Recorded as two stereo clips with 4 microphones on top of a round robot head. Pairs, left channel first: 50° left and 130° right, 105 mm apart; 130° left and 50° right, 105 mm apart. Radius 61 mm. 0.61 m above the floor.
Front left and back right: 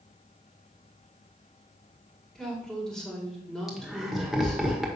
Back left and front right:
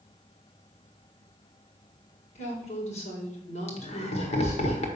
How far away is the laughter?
About 1.6 m.